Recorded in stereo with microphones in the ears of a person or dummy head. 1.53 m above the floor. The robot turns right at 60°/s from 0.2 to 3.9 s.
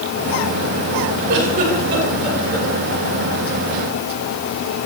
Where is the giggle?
60° right (ahead or behind), 6.5 m; by 2.7 s 20° left (ahead or behind), 6.5 m.